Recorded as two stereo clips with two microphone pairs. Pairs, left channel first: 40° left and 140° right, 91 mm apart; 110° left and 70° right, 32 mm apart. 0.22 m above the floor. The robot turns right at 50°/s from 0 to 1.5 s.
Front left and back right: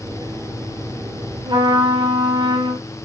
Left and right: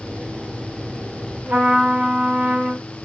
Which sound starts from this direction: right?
A trumpet, at 1.4 s.